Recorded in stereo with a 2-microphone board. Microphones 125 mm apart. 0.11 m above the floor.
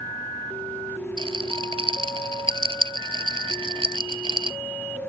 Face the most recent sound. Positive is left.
turn(degrees=-45)  # may be behind; listen again after turning